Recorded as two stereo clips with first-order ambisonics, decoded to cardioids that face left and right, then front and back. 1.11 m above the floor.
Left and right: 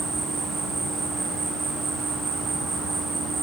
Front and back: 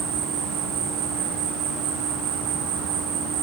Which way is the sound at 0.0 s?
165° right.